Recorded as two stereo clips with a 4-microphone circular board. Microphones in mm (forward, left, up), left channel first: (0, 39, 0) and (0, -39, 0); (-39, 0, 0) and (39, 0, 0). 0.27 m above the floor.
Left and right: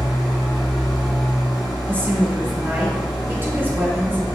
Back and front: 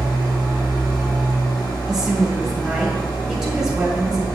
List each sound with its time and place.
0.0 s an engine running: straight behind, 2 m
1.9 s a woman speaking: 75° right, 1.5 m